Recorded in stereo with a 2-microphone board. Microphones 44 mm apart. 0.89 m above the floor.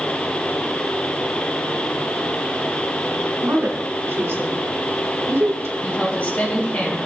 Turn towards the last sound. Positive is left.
turn(degrees=40)  # may be behind; listen again after turning